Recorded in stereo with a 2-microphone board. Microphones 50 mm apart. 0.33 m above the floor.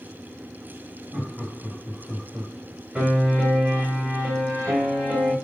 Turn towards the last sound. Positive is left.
turn(degrees=-40)  # may be behind; listen again after turning